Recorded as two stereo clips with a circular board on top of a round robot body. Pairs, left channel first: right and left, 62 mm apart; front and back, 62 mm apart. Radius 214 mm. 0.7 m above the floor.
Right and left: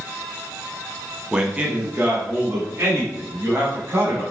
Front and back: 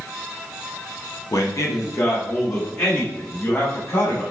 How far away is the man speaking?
About 1.4 m.